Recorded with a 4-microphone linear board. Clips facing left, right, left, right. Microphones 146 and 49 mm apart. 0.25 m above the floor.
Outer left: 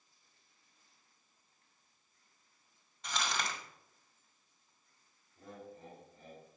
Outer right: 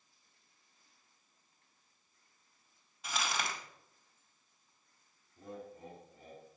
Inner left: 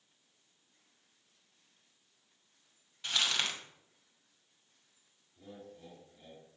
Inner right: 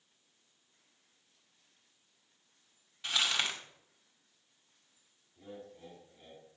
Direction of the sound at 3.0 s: 5° right (ahead or behind).